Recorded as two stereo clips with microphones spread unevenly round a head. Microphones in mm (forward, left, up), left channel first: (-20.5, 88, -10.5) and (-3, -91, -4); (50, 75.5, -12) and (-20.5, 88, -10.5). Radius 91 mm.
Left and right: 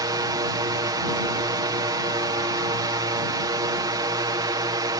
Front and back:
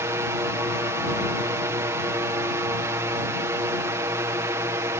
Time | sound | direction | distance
0.0 | a drone | 145° right | ?